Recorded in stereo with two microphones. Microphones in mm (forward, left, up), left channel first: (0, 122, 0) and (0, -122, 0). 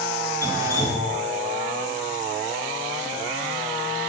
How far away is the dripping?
About 2.5 m.